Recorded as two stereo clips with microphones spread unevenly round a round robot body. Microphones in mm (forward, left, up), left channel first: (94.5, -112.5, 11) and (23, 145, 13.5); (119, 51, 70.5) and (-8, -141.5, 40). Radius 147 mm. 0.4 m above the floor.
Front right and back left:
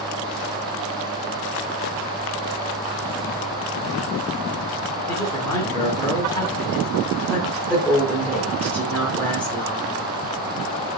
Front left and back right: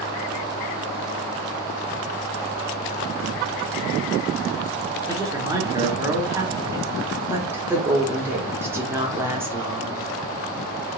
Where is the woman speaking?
150° right, 0.9 m.